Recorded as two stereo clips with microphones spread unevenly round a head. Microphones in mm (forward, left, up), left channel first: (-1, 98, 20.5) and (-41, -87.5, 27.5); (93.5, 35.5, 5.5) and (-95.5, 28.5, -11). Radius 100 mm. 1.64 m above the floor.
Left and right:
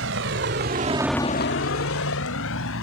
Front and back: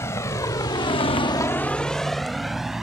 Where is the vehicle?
75° right; by 2.8 s 95° left.